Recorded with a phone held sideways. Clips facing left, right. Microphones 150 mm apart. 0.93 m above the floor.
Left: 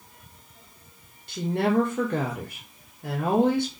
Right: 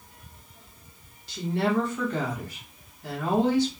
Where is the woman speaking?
55° left (ahead or behind), 1.2 m.